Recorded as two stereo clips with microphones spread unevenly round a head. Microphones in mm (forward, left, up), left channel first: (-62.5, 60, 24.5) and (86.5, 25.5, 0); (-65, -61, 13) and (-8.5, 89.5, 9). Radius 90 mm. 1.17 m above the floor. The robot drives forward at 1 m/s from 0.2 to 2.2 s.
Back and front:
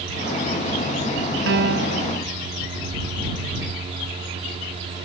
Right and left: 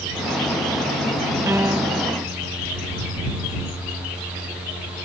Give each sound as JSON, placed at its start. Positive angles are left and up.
{"t": 1.5, "sound": "a piano", "azimuth_deg": -10}